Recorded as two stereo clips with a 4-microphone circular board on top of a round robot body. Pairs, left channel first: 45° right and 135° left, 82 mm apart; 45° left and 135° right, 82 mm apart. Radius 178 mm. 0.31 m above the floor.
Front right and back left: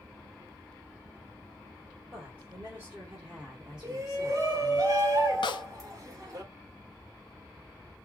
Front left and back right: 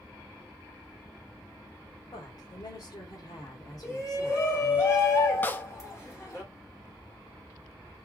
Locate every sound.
2.1 s a woman speaking: 75° left, 3 m; by 4.8 s 30° left, 1.8 m
3.8 s a shout: 90° left, 2.5 m
5.4 s a snare drum: 25° right, 0.6 m